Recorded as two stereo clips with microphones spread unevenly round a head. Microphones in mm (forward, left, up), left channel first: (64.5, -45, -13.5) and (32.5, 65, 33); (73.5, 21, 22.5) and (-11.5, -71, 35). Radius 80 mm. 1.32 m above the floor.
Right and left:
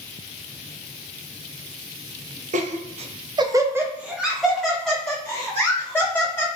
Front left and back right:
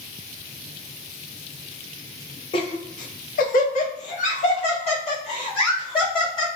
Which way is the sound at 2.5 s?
105° left.